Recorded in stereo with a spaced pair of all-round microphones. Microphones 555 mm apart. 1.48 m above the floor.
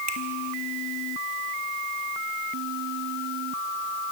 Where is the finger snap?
45° right (ahead or behind), 2 m.